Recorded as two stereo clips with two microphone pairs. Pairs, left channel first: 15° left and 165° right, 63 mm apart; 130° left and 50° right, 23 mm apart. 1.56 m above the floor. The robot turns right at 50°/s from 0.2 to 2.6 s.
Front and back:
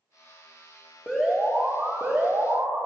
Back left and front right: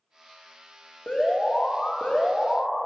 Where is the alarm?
90° left, 2 m; by 2.8 s 170° left, 2 m.